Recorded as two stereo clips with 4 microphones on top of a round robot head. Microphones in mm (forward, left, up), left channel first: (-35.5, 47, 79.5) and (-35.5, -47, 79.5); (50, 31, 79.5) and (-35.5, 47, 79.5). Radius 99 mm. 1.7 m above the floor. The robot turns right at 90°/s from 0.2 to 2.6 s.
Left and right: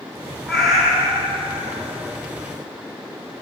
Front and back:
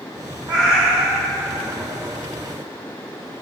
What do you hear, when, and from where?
0.5 s a cat meowing: 165° left, 1.3 m; by 1.8 s 80° right, 1.3 m